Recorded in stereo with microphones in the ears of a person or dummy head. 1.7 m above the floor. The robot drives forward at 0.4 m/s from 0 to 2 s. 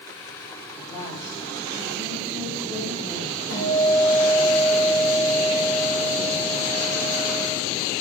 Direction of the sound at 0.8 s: 25° right (ahead or behind).